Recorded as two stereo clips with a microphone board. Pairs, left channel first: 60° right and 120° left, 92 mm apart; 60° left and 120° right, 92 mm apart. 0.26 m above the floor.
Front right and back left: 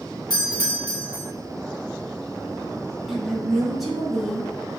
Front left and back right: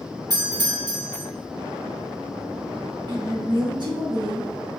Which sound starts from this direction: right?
A doorbell, at 0.3 s.